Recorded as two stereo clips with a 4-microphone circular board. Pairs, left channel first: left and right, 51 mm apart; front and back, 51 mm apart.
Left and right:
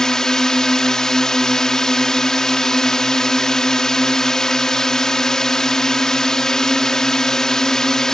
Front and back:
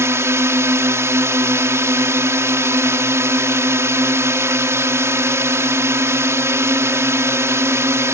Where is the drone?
165° left.